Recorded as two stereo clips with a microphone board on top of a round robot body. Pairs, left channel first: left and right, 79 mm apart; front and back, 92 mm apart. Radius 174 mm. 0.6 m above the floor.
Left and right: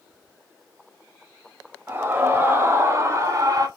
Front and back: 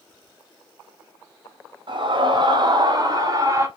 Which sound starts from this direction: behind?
A scream, at 1.9 s.